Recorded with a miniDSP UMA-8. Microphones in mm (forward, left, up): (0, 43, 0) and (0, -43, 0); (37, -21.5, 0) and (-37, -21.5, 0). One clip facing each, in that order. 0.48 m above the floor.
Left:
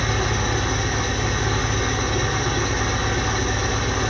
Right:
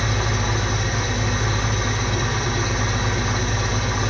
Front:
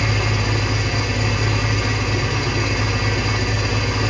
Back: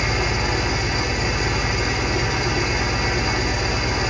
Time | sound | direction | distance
0.0 | an engine running | 115° left | 3 m